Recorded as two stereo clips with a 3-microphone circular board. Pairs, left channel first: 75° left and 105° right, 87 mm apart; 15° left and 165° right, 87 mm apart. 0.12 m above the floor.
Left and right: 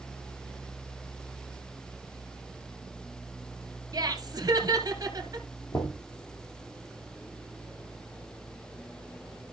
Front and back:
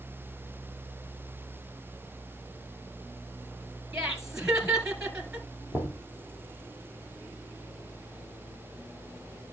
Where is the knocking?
60° left, 2.5 m.